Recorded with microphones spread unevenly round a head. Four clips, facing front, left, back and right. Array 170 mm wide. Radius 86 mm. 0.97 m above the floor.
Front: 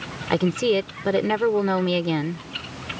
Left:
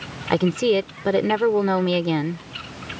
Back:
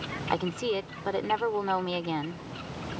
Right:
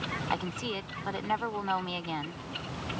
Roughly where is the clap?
I don't hear a clap.